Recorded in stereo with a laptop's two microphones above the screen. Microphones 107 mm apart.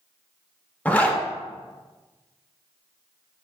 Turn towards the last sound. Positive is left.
turn(degrees=15)  # may be behind; listen again after turning